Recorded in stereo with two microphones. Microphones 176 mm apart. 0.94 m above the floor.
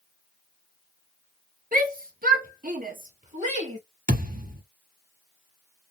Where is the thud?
55° right (ahead or behind), 1.2 m.